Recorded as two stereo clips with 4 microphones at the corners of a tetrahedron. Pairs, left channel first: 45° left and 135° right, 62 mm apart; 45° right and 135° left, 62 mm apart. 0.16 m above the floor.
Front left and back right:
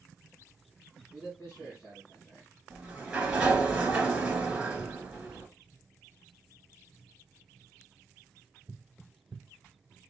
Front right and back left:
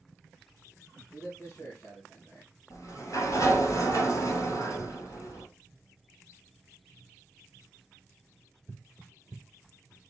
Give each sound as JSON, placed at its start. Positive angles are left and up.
{"t": 1.1, "sound": "a man speaking", "azimuth_deg": 5, "distance_m": 3.0}
{"t": 2.7, "sound": "a sliding door", "azimuth_deg": -60, "distance_m": 1.7}